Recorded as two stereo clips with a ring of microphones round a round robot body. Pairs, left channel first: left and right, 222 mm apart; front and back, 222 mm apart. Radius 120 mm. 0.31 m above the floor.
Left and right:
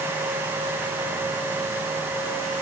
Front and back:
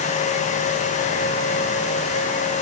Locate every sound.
Only background noise.